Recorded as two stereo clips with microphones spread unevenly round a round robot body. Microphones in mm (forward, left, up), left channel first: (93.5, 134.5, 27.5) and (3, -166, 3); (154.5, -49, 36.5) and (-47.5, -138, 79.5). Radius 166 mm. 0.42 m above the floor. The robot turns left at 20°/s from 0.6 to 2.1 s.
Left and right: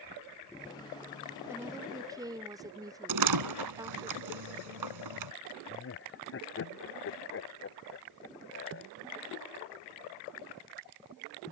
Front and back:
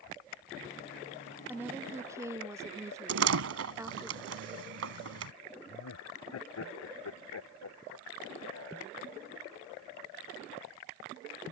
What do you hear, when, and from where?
1.5 s a woman speaking: 55° right; by 4.1 s 70° right
3.1 s a door slam: 140° right
5.7 s laughter: 25° left